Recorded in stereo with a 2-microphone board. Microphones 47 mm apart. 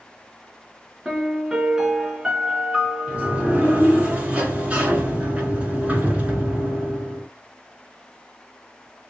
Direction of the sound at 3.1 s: 25° right (ahead or behind).